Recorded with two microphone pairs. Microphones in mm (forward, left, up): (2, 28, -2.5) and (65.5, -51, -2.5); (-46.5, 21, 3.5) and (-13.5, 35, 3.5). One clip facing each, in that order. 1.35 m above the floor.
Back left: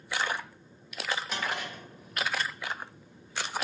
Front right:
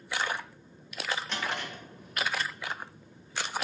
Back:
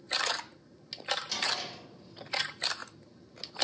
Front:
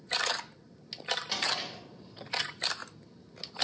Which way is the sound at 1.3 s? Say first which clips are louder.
Back left 1 dB, front 1 dB; 50° left.